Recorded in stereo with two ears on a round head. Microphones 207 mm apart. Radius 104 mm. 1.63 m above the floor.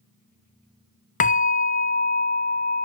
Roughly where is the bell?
Left.